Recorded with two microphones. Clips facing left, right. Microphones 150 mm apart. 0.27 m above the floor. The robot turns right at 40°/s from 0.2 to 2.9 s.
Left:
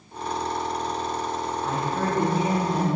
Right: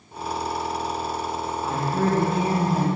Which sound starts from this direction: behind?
A woman speaking, at 1.6 s.